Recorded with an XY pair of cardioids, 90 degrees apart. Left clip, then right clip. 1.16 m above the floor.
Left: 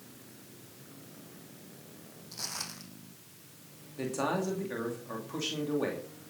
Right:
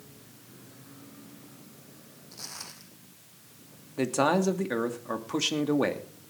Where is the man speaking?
65° right, 2.5 m.